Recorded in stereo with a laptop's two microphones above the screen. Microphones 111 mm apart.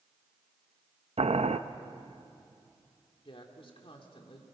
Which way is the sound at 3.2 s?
55° left (ahead or behind).